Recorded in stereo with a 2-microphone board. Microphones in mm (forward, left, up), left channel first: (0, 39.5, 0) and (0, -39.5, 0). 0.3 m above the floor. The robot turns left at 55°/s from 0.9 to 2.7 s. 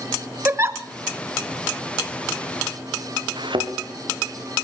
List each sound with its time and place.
0.5 s a giggle: 30° right (ahead or behind), 1.0 m
3.4 s a thud: 85° right, 3 m